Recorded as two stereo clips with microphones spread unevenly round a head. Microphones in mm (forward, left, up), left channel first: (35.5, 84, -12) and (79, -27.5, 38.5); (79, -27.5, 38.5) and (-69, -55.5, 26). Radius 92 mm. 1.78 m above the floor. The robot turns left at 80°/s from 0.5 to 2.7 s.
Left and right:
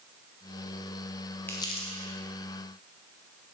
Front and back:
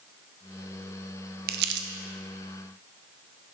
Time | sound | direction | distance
1.5 | crumpling | 155° right | 0.5 m